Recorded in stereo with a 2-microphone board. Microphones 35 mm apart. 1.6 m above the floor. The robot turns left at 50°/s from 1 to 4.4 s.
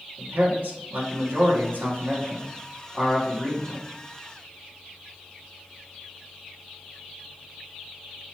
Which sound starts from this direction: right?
A man speaking, at 0.2 s.